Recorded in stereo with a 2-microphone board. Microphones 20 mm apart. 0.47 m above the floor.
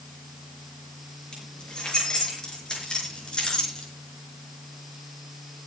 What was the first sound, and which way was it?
Keys jangling, 40° left (ahead or behind).